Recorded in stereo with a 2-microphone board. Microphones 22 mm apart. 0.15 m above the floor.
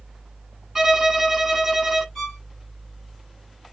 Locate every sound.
0.8 s a violin: 15° right (ahead or behind), 1.0 m
2.1 s a violin: 5° left (ahead or behind), 2.5 m